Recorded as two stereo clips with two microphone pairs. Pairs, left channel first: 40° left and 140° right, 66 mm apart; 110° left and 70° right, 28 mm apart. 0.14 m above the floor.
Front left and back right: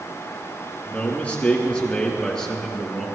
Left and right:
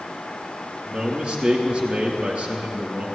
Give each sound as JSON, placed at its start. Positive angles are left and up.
{"t": 0.8, "sound": "a man speaking", "azimuth_deg": -20, "distance_m": 3.0}